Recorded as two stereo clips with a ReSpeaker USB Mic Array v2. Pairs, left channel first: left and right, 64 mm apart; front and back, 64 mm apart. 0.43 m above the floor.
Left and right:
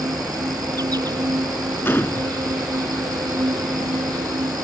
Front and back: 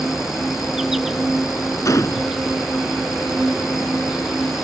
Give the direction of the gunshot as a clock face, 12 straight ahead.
11 o'clock.